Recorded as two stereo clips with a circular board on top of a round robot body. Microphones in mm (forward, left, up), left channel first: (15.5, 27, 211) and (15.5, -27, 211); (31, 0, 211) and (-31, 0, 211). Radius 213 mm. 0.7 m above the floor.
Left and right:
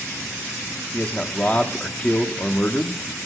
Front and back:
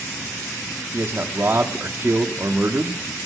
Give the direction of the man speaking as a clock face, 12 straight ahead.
7 o'clock.